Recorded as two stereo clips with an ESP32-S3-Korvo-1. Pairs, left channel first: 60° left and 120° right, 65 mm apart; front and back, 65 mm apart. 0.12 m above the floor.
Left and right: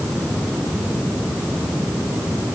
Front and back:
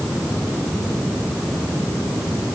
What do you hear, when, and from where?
Only background noise.